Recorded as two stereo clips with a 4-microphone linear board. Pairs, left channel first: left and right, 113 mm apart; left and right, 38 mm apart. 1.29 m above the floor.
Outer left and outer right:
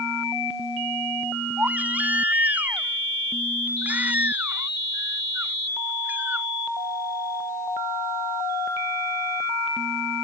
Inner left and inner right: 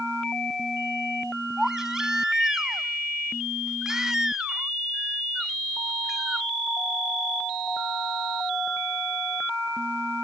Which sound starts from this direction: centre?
A baby crying, at 1.6 s.